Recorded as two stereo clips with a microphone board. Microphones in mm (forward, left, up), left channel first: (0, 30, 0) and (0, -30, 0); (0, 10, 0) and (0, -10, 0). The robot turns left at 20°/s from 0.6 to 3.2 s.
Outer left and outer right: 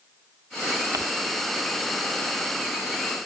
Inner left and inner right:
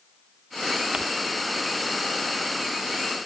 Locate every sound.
0.9 s crumpling: 55° right (ahead or behind)